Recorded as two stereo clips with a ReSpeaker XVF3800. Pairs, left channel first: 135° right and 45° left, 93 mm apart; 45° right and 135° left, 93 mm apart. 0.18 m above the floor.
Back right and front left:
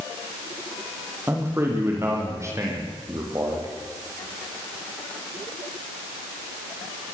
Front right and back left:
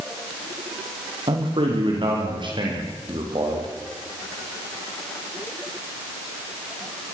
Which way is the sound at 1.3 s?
110° left.